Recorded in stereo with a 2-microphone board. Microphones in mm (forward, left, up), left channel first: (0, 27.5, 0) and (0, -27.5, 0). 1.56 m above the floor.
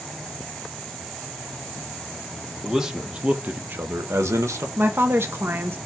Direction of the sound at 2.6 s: 5° right (ahead or behind).